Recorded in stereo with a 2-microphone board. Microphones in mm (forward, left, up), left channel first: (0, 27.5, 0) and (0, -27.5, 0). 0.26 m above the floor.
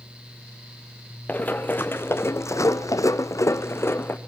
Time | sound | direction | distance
1.3 | running footsteps | 30° left (ahead or behind) | 1.7 m